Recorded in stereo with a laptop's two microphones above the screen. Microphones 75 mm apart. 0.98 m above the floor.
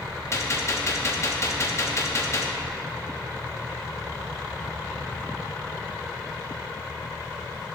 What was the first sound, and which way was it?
A gunshot, 40° left (ahead or behind).